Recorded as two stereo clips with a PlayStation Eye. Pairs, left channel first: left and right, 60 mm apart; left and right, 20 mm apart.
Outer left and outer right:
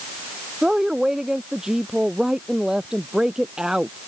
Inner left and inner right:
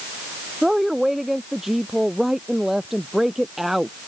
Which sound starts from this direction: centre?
A woman speaking, at 0.6 s.